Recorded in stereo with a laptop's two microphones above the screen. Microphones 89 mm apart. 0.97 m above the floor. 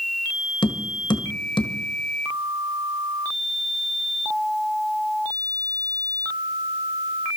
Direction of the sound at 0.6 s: 65° left (ahead or behind).